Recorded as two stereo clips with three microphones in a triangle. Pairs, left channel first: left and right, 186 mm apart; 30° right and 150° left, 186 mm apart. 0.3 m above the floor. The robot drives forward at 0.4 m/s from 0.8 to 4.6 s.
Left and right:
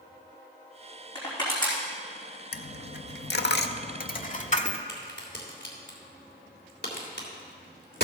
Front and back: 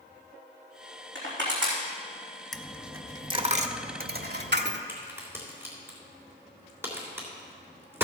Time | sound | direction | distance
1.1 | crushing | 155° left | 4 m
2.5 | a dropped coin | 60° left | 0.6 m
4.9 | a crack | 75° left | 3 m